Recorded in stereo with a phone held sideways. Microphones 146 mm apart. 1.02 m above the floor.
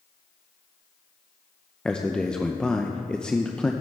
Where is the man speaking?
5° left (ahead or behind), 0.5 m.